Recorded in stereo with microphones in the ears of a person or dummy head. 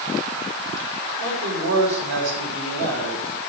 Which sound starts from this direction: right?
A man speaking, at 1.2 s.